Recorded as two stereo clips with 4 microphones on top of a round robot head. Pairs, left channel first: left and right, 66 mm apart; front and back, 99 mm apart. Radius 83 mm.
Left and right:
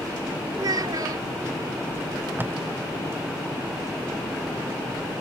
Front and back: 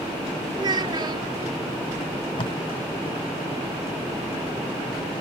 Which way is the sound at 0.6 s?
125° right.